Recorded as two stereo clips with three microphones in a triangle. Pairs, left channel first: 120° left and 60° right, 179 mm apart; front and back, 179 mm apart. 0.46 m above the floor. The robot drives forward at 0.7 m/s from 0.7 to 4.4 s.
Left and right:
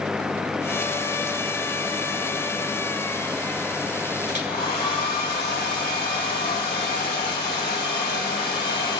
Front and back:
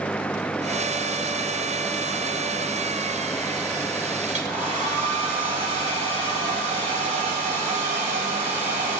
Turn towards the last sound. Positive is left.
turn(degrees=140)